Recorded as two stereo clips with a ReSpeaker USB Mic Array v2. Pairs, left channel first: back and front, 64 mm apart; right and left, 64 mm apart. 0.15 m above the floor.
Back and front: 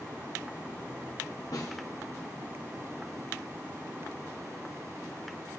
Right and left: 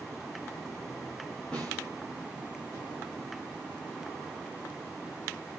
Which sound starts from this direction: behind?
A snare drum, at 1.5 s.